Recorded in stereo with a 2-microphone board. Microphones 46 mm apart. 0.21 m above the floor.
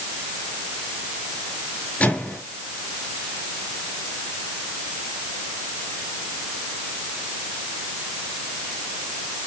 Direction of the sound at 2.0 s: 35° left (ahead or behind).